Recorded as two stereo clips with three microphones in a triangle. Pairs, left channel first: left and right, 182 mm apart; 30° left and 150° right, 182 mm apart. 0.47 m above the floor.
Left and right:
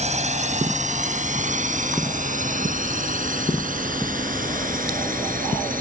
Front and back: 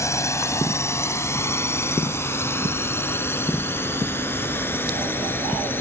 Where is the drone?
45° right; by 5.8 s 50° right.